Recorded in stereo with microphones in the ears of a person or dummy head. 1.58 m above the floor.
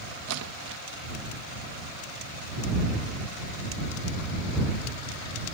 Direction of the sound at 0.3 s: 80° right.